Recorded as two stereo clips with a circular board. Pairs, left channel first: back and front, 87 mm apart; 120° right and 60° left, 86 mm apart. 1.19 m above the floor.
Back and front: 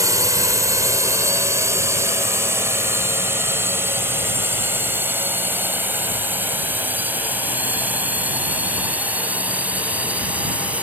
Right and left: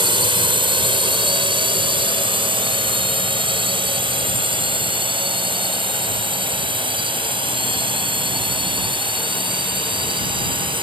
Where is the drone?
50° left; by 10.8 s 75° left.